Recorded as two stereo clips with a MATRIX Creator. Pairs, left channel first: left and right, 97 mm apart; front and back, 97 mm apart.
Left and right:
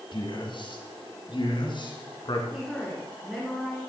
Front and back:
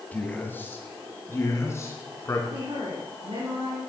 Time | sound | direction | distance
0.1 | a man speaking | 70° left | 2.5 m
2.5 | a woman speaking | straight behind | 4 m